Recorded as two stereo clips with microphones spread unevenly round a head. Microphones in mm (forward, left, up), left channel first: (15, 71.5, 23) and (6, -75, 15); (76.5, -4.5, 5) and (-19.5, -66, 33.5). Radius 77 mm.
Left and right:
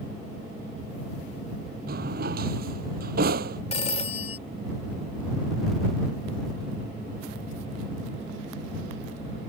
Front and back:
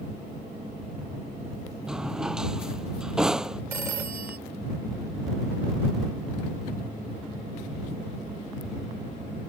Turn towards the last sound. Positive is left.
turn(degrees=140)